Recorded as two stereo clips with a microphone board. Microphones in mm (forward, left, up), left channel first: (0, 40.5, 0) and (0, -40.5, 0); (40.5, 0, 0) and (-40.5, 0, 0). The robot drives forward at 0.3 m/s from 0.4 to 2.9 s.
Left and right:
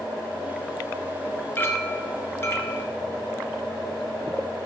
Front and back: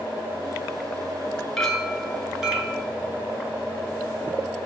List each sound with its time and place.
1.6 s a clink: 75° left, 1.0 m; by 2.8 s 120° left, 1.0 m